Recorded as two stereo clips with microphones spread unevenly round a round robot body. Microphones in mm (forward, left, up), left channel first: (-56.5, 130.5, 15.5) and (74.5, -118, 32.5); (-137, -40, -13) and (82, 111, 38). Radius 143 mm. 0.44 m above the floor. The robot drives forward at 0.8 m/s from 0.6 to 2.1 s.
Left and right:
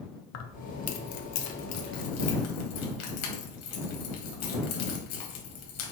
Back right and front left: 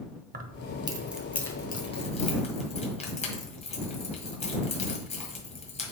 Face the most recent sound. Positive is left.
turn(degrees=150)